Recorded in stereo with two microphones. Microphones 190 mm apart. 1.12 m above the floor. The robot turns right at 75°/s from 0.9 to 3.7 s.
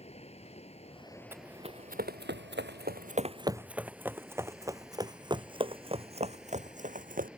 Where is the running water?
145° left; by 7.4 s 5° right.